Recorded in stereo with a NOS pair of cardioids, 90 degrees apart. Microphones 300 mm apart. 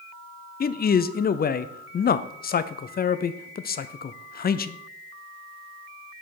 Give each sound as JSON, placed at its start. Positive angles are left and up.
{"t": 0.6, "sound": "a man speaking", "azimuth_deg": 35, "distance_m": 0.6}